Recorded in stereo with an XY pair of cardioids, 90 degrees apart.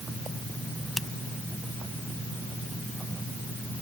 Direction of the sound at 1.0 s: 15° left.